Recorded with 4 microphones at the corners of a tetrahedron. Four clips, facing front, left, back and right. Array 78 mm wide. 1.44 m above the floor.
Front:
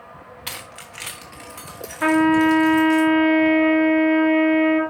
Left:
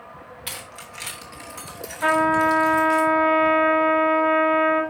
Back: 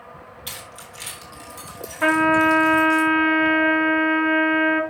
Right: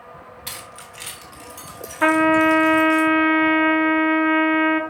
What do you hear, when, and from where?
0.5 s keys jangling: 5° right, 1.3 m; by 3.0 s 50° left, 4 m
2.0 s a trumpet: 85° right, 1.4 m